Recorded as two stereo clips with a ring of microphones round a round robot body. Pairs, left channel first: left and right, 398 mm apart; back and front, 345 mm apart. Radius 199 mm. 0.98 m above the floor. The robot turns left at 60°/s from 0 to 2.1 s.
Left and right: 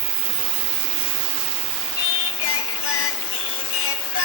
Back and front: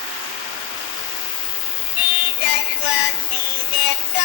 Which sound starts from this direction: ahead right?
An insect, at 0.0 s.